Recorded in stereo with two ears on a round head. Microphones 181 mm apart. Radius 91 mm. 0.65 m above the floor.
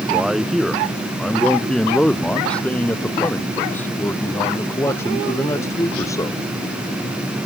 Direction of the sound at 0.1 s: Centre (ahead or behind).